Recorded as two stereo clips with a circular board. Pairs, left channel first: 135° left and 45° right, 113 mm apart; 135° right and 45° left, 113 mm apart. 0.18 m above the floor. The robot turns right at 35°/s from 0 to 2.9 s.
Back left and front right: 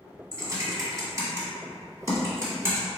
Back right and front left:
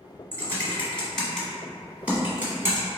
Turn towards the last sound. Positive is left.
turn(degrees=5)